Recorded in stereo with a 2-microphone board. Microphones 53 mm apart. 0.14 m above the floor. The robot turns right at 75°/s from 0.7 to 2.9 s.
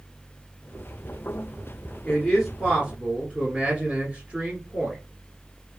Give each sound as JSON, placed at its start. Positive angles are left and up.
{"t": 2.0, "sound": "a man speaking", "azimuth_deg": 165, "distance_m": 1.4}